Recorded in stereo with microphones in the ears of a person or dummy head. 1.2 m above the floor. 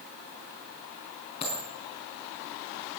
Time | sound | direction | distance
1.4 | a dropped coin | 30° left (ahead or behind) | 5 m